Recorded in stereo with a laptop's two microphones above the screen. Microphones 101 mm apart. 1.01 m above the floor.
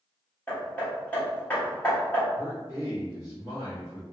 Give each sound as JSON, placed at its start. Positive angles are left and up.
{"t": 0.5, "sound": "hammering", "side_deg": 15, "distance_m": 1.0}
{"t": 2.4, "sound": "a man speaking", "side_deg": -25, "distance_m": 1.3}